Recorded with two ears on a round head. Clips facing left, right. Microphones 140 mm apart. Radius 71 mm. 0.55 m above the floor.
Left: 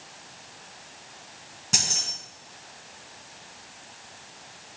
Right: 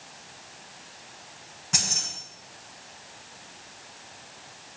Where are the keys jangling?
35° left (ahead or behind), 5 m.